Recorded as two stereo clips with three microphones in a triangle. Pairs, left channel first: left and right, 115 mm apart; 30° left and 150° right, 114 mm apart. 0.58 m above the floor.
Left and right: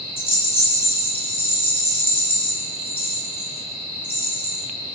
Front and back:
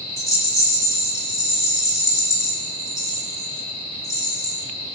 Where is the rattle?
85° left, 0.8 m.